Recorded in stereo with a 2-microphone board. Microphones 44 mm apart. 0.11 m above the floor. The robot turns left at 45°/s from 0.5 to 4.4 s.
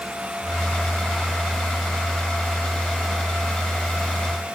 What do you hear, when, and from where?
Only background noise.